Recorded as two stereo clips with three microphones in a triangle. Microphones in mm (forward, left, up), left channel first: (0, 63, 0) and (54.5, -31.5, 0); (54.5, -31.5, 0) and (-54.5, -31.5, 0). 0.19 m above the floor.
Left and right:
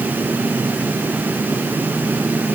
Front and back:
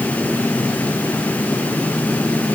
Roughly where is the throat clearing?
No throat clearing in this recording.